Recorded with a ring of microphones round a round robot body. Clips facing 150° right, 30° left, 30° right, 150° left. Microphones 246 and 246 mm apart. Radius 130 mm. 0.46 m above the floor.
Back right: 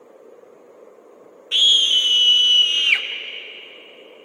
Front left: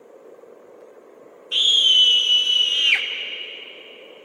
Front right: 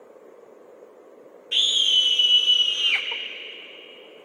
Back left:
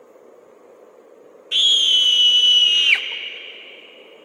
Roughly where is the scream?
Behind right.